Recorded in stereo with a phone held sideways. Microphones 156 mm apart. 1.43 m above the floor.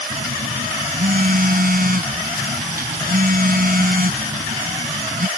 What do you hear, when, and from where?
0.1 s a phone buzzing: 65° right (ahead or behind)